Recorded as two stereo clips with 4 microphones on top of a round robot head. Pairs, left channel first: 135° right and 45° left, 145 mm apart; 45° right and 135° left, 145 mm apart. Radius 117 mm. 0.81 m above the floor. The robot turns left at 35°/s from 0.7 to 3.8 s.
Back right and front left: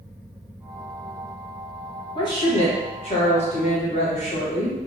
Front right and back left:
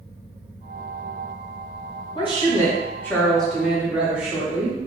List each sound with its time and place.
2.1 s a woman speaking: 85° right, 1.3 m; by 4.8 s 145° right, 1.3 m